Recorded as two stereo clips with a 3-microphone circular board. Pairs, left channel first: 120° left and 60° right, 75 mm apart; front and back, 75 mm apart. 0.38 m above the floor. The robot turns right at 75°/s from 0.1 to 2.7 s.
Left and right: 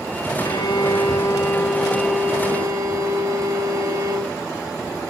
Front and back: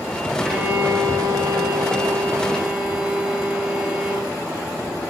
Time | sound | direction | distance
0.4 | a violin | 90° left | 2.5 m